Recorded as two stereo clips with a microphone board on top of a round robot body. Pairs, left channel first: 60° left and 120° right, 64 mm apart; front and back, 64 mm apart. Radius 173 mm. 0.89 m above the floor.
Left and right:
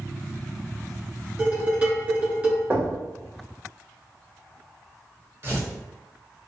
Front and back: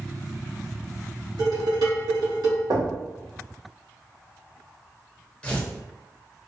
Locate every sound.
1.4 s dishes clattering: 175° left, 1.7 m
2.7 s knocking: straight behind, 1.0 m
5.4 s tearing paper: 70° right, 1.0 m